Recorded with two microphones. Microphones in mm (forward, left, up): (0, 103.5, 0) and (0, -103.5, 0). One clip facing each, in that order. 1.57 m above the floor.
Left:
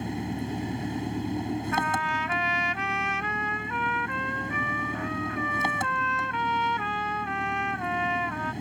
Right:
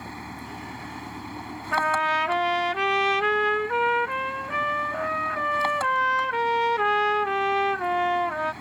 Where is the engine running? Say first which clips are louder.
Left 8 dB; 25° left (ahead or behind).